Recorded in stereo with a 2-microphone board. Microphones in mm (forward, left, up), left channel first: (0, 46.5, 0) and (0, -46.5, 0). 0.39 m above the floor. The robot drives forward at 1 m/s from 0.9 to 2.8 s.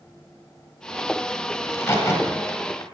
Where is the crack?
25° left (ahead or behind), 2.5 m; by 2.8 s 40° left (ahead or behind), 1.5 m.